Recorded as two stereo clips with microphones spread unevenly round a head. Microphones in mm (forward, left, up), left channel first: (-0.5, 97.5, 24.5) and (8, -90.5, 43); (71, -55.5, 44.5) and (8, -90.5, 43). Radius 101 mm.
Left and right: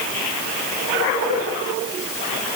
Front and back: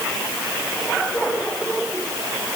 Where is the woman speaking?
I don't hear a woman speaking.